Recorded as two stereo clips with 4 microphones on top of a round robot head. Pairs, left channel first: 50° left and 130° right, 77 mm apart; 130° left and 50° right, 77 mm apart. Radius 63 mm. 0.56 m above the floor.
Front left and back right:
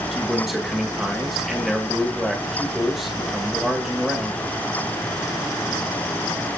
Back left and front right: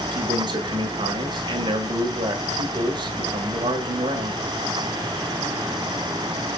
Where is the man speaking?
45° right, 2 m.